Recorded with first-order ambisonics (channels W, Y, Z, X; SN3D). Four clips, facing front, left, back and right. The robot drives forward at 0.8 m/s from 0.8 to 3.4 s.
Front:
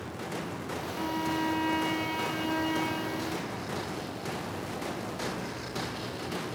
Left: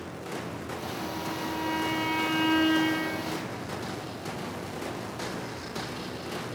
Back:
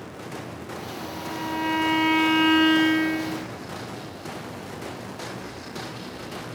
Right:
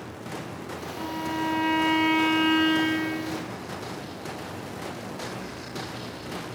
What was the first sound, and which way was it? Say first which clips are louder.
A violin: right 6 dB, front 3 dB; 35° right.